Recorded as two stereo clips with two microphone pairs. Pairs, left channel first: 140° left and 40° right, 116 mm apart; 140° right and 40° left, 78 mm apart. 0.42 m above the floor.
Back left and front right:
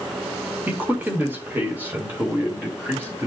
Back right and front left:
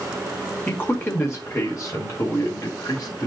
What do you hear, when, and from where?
0.7 s a man speaking: 95° right, 1.1 m; by 3.3 s 110° right, 2 m